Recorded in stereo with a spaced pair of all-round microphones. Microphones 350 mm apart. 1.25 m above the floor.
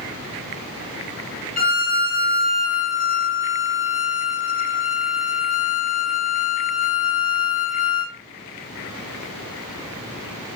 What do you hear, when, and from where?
1.6 s a violin: 25° left (ahead or behind), 1.2 m